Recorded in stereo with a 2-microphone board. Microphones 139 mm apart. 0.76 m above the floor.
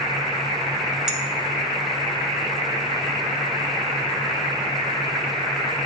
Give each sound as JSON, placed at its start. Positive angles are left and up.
{"t": 1.1, "sound": "a clink", "side_deg": -5, "distance_m": 1.0}